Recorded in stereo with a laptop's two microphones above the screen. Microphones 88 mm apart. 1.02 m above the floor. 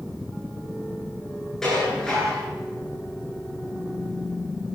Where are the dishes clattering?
5° left (ahead or behind), 9 m.